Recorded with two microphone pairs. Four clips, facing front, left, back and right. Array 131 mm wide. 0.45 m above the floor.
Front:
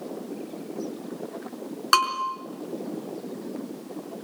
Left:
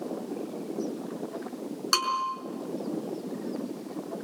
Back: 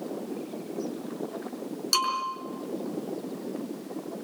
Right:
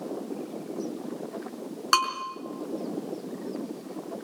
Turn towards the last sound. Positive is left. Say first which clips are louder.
# right 3 dB, front 6 dB
turn(degrees=-20)